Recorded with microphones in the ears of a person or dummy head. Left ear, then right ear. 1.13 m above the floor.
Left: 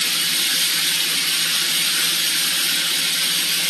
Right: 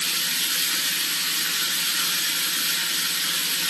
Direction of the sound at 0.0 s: 5° left (ahead or behind).